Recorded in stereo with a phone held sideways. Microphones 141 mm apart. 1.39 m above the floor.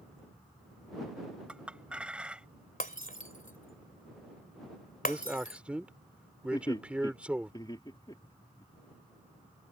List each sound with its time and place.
1.5 s a clink: 5° right (ahead or behind)
2.8 s breaking glass: 75° left (ahead or behind)
5.0 s a man speaking: 10° right (ahead or behind)
6.5 s laughter: 30° left (ahead or behind)